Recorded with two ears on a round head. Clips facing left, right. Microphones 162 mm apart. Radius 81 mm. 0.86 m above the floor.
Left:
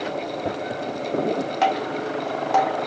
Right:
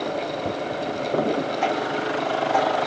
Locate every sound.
1.6 s dripping: 80° left, 1.9 m